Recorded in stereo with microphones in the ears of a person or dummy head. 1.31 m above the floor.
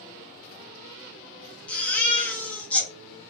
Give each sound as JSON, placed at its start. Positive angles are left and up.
{"t": 1.7, "sound": "a baby crying", "side_deg": 10, "distance_m": 1.2}